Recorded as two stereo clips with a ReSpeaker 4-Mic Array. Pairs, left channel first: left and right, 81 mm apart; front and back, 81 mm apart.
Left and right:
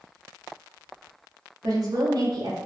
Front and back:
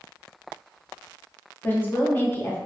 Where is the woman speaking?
65° right, 0.7 m.